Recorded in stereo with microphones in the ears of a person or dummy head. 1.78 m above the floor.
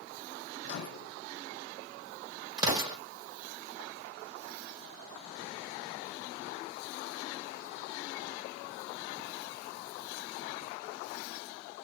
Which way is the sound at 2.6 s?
30° right (ahead or behind).